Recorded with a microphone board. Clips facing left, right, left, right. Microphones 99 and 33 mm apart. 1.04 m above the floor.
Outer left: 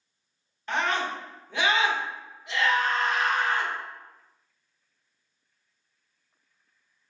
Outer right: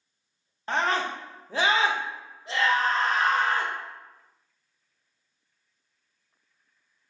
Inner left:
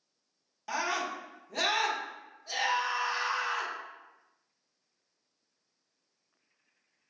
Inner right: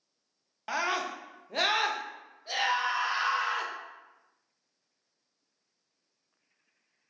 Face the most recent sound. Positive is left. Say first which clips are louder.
# outer right 1 dB, inner right 2 dB
turn(degrees=-30)  # may be behind; listen again after turning